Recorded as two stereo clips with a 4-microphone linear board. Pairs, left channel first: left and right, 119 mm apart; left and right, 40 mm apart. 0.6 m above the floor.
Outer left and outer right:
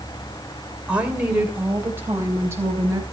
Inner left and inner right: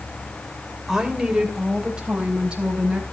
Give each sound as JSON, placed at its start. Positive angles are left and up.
{"t": 0.9, "sound": "a woman speaking", "side_deg": -10, "distance_m": 2.5}